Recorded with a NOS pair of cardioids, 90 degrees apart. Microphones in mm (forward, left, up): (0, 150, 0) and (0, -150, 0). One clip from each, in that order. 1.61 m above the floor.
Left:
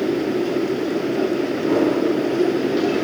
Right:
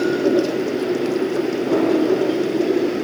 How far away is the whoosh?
About 4 m.